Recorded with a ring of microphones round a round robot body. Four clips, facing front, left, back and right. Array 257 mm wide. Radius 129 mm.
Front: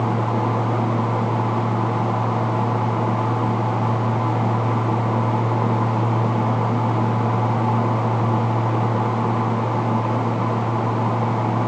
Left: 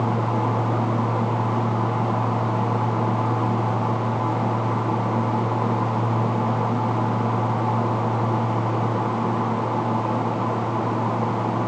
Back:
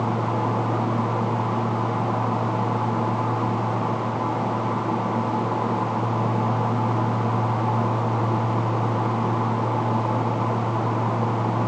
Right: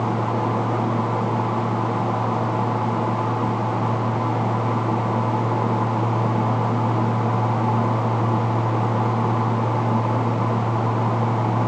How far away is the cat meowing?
I don't hear a cat meowing.